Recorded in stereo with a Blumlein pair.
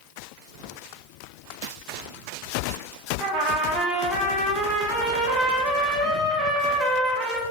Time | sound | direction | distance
3.2 | a trumpet | 25° right | 0.6 m